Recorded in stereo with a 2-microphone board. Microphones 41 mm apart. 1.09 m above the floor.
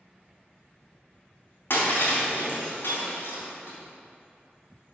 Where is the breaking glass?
65° left (ahead or behind), 3.5 m.